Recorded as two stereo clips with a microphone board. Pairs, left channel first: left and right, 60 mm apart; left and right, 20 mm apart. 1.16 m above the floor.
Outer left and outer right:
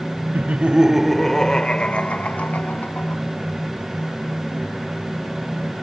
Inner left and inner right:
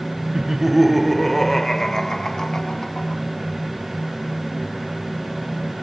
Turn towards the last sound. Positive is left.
turn(degrees=30)  # may be behind; listen again after turning